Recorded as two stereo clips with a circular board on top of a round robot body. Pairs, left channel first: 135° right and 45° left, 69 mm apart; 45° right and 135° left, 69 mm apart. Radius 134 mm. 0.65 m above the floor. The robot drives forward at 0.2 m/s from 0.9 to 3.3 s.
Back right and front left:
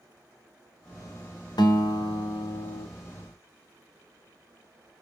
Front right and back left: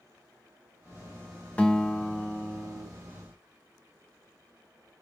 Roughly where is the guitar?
Behind right.